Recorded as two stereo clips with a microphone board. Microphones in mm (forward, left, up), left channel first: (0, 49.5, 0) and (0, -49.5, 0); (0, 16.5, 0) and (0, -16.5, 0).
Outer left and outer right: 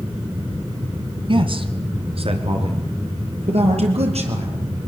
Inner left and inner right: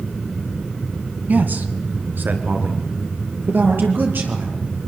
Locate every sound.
1.3 s a man speaking: 50° right (ahead or behind), 2 m; by 4.6 s 75° right (ahead or behind), 6 m